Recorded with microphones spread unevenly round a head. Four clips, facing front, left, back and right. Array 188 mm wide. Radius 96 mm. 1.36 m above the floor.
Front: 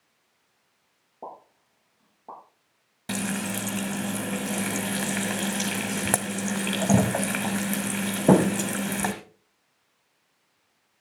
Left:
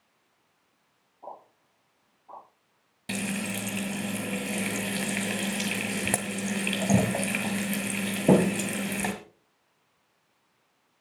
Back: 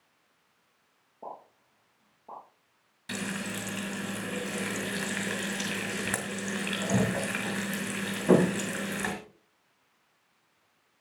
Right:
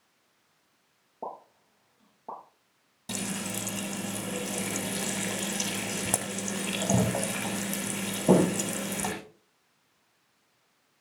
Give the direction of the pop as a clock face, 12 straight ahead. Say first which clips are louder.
Right 4 dB, front 2 dB; 2 o'clock.